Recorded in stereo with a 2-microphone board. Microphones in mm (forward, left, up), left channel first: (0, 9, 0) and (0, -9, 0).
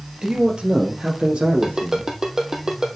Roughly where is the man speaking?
Right.